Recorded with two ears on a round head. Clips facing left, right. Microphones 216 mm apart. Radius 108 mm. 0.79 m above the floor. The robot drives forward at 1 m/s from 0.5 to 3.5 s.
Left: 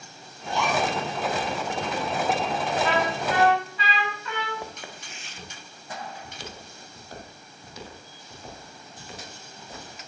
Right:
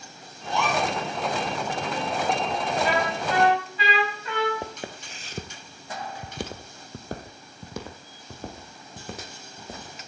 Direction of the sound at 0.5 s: 50° right (ahead or behind).